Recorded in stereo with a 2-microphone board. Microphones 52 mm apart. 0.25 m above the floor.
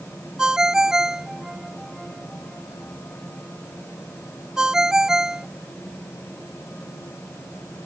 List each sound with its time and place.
0.4 s a ringtone: 10° right (ahead or behind)